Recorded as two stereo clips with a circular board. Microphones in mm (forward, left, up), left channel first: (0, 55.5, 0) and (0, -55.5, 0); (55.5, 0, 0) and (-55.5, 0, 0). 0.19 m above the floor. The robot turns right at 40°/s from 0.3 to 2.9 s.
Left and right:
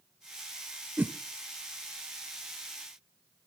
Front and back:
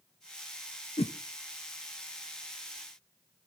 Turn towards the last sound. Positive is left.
turn(degrees=60)